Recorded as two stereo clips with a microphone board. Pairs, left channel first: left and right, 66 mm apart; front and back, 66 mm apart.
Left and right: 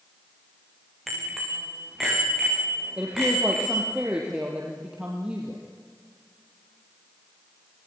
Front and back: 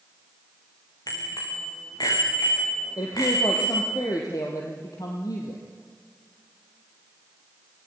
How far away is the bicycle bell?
About 8 m.